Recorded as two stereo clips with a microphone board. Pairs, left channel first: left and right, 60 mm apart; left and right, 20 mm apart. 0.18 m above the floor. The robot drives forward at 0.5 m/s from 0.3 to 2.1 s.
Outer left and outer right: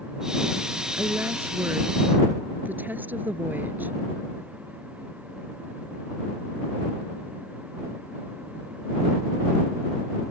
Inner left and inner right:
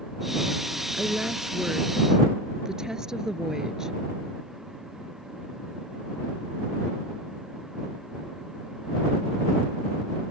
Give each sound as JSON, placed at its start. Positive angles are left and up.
{"t": 0.9, "sound": "a woman speaking", "side_deg": -40}